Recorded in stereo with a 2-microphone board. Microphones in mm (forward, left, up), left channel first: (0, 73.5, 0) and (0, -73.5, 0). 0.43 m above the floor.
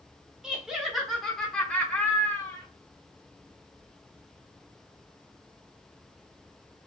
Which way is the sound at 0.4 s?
5° right (ahead or behind).